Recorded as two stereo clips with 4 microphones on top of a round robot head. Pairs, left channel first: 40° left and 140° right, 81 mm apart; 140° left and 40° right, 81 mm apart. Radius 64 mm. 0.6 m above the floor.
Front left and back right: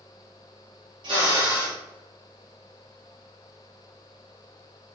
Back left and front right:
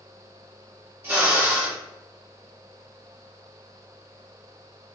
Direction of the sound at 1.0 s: 110° right.